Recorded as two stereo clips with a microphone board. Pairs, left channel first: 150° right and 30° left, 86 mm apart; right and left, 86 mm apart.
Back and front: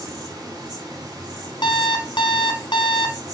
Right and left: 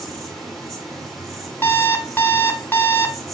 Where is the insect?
Straight ahead, 4 m.